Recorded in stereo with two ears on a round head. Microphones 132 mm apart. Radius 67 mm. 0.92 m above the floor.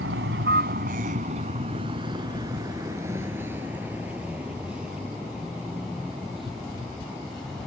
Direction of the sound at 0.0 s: 85° right.